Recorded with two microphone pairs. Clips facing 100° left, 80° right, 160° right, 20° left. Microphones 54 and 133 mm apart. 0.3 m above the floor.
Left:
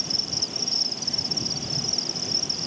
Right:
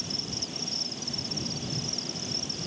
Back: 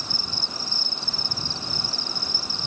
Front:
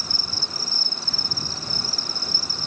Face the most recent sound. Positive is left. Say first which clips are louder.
# left 2 dB, even
turn(degrees=75)